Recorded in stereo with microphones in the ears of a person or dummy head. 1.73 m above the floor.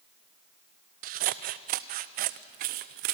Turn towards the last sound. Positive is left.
turn(degrees=-40)  # may be behind; listen again after turning